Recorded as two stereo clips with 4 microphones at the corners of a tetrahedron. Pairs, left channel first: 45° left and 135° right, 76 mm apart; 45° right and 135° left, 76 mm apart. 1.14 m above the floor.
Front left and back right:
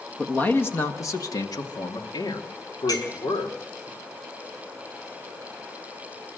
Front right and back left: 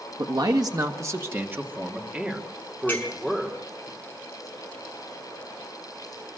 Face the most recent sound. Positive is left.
turn(degrees=20)